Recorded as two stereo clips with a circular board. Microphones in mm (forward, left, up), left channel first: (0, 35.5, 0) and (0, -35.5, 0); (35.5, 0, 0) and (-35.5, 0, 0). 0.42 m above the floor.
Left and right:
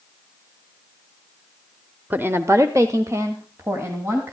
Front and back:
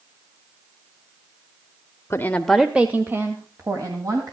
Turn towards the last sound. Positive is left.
turn(degrees=-145)